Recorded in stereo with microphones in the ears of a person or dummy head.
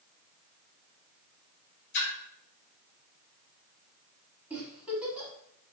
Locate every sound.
1.9 s a splash: 65° left (ahead or behind), 1.2 m
4.5 s a giggle: 10° right (ahead or behind), 0.9 m